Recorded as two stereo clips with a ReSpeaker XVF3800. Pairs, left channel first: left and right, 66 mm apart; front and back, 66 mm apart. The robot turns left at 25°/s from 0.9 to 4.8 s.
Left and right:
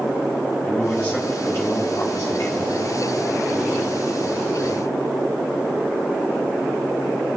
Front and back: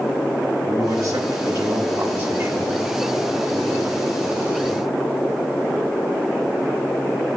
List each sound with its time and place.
0.6 s a man speaking: 170° left, 1.8 m; by 2.7 s 125° left, 1.8 m